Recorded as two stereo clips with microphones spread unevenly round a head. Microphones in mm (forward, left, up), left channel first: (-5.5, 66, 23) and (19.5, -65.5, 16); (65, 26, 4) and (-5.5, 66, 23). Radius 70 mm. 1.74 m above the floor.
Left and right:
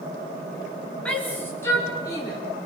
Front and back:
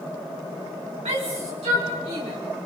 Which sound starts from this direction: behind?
A shout, at 1.1 s.